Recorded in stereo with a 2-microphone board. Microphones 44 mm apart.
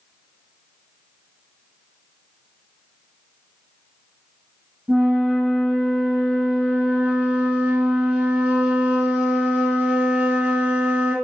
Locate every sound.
4.9 s a flute: 25° right (ahead or behind), 1.2 m